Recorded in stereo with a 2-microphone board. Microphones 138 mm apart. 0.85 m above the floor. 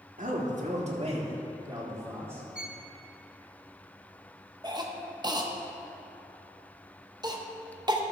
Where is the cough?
30° right (ahead or behind), 0.9 m.